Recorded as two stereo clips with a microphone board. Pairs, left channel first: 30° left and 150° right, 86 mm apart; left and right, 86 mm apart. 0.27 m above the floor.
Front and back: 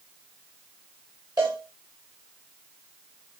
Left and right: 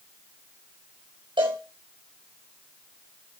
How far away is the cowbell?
About 4 m.